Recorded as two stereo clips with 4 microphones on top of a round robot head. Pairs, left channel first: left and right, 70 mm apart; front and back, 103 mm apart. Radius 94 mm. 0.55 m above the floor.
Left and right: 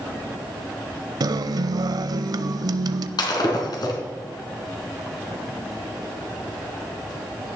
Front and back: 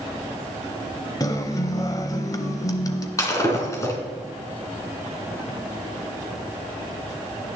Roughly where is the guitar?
Ahead right.